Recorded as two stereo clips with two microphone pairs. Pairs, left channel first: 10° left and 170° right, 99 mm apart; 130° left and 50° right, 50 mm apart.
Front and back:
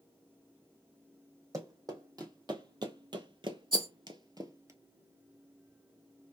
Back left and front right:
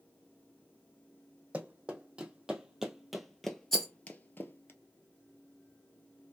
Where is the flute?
No flute in this recording.